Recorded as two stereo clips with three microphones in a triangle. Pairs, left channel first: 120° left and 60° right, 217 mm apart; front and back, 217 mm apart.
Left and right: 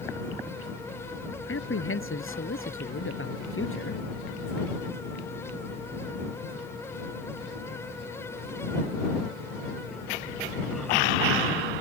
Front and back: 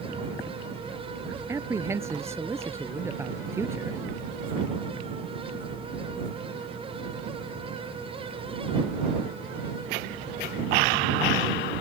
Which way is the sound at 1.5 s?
100° left.